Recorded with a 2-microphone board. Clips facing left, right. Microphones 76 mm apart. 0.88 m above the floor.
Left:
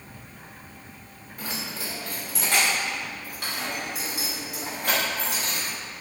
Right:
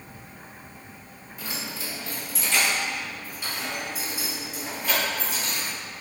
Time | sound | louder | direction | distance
1.4 | keys jangling | left 1 dB | 50° left (ahead or behind) | 2 m